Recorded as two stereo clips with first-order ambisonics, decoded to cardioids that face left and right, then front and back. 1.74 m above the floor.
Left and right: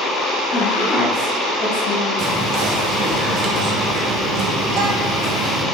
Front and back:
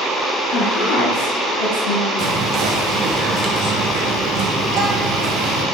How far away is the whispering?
About 1.4 m.